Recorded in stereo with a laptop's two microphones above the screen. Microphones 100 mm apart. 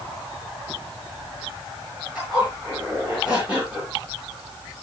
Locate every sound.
2.1 s a zipper: 10° right (ahead or behind), 7 m